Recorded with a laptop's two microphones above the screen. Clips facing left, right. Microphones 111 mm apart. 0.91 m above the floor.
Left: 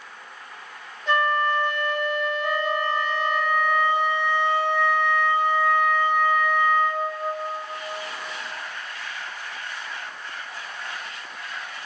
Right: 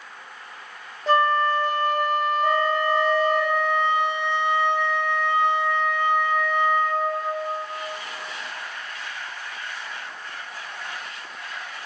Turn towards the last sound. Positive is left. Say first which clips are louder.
# right 3 dB
turn(degrees=-25)  # may be behind; listen again after turning